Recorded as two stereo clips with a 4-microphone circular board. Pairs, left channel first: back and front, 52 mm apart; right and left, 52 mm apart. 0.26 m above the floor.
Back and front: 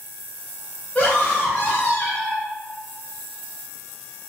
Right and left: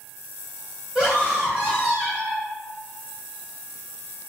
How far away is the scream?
About 1.1 m.